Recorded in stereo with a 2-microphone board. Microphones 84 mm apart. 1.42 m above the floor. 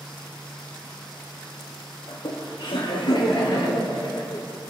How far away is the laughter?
About 1.9 m.